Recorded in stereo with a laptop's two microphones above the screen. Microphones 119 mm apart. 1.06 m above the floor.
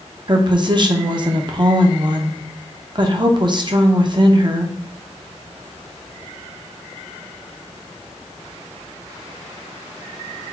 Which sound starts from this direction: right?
A woman speaking, at 0.3 s.